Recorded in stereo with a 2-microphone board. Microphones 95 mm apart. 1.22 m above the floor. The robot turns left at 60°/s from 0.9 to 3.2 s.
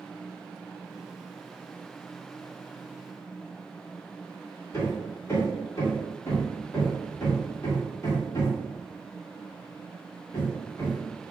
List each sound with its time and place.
4.7 s hammering: 30° left (ahead or behind), 2.0 m